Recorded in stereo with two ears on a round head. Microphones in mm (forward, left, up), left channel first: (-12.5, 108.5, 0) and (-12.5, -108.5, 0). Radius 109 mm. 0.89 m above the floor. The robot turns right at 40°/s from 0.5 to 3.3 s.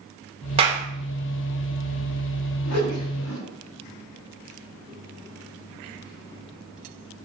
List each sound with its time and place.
0.6 s a clap: 25° right (ahead or behind), 2.5 m; by 0.8 s 15° right (ahead or behind), 2.5 m
2.6 s a whoosh: 70° left (ahead or behind), 7.5 m; by 3.4 s 80° left, 7.5 m